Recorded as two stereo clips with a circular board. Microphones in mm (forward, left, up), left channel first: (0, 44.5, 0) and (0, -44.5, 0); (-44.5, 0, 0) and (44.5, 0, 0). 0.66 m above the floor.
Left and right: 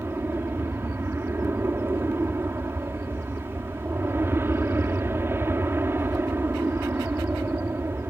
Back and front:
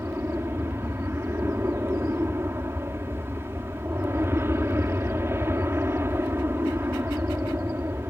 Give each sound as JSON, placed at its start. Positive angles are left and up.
{"t": 0.0, "sound": "an aircraft", "azimuth_deg": -45}